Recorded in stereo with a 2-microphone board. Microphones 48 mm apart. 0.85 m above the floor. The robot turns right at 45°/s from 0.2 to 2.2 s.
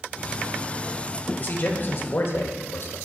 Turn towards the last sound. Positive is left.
turn(degrees=95)